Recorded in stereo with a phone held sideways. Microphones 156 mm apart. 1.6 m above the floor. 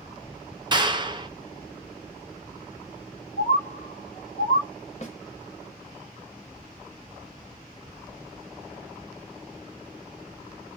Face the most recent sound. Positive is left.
turn(degrees=45)  # may be behind; listen again after turning